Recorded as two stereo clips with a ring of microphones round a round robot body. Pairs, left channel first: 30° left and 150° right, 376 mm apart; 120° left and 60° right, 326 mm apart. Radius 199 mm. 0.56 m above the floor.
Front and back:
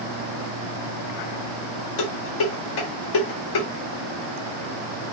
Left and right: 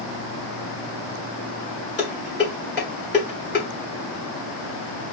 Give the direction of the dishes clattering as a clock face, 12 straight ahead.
10 o'clock.